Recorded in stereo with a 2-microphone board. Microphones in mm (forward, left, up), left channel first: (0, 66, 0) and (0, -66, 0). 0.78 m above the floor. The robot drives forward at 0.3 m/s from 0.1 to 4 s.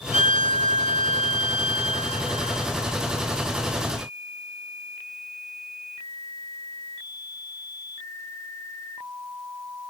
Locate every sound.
0.1 s a violin: 65° right (ahead or behind), 1.3 m; by 2.7 s 60° right (ahead or behind), 1.4 m